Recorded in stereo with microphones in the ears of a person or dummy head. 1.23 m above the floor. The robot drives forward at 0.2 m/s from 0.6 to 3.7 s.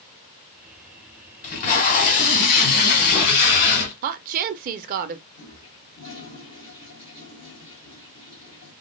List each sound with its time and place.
1.4 s tape being pulled: 40° left (ahead or behind), 1.3 m; by 3.9 s 45° left (ahead or behind), 1.2 m
4.0 s a woman speaking: 45° right (ahead or behind), 0.6 m
5.3 s a toilet flushing: 25° left (ahead or behind), 1.6 m